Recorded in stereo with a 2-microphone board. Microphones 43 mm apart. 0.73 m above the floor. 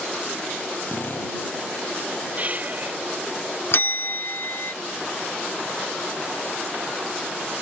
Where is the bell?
60° left (ahead or behind).